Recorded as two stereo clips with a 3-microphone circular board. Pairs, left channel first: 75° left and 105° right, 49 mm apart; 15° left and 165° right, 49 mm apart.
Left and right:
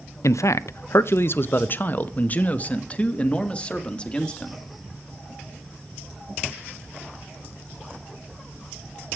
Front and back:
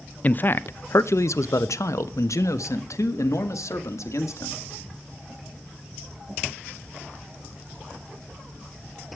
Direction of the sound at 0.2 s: 75° left.